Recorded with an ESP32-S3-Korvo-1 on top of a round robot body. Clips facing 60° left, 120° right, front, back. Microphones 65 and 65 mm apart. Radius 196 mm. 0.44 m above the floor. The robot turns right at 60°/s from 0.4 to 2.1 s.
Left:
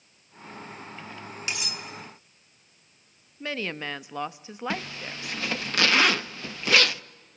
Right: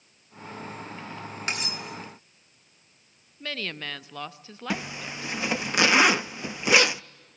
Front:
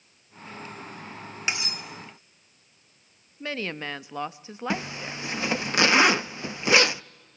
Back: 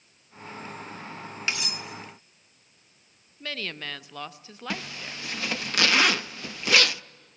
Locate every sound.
1.5 s cutlery clinking: 75° right, 2.5 m; by 1.8 s 55° right, 2.5 m
3.4 s a woman speaking: 20° left, 1.1 m
4.7 s a zipper: 60° right, 0.7 m